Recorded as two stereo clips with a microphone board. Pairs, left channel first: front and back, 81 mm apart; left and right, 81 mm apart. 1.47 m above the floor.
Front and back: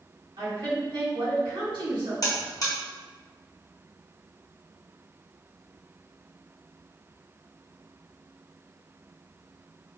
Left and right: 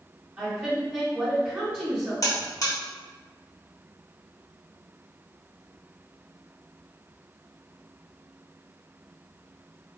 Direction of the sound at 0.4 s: 160° right.